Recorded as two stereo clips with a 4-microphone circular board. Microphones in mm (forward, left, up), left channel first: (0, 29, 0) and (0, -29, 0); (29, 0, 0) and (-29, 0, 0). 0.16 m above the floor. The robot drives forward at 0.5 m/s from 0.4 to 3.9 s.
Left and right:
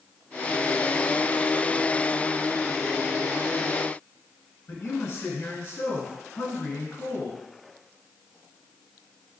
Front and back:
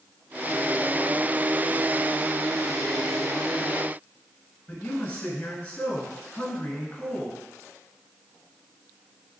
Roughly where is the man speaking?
Ahead left.